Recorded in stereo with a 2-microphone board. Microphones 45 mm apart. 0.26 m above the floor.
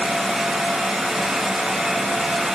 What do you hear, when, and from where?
Only background noise.